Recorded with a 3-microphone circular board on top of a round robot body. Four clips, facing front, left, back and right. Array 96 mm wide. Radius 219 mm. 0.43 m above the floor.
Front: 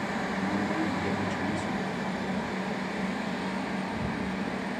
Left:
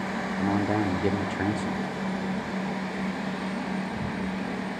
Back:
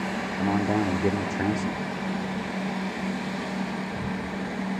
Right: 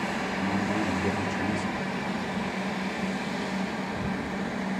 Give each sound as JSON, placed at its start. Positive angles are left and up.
{"t": 0.4, "sound": "a man speaking", "azimuth_deg": 145, "distance_m": 1.6}